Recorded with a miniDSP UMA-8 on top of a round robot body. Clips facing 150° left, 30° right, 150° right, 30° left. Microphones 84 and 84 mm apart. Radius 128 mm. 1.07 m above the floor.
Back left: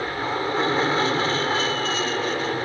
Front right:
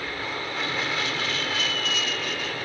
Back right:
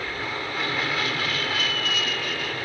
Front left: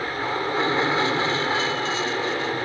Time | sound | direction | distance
0.0 | an aircraft | 95° left | ?